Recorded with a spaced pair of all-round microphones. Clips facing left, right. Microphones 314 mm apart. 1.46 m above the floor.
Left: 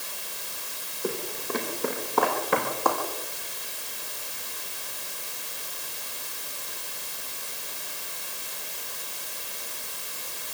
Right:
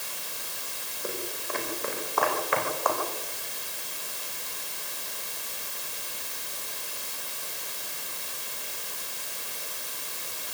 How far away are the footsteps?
About 5 m.